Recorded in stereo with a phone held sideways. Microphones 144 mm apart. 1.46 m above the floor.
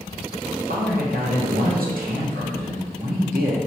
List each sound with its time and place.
0.7 s a man speaking: 70° right (ahead or behind), 1.0 m